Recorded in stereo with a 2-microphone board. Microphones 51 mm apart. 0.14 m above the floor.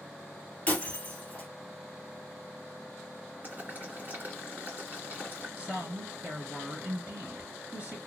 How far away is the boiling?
About 2 m.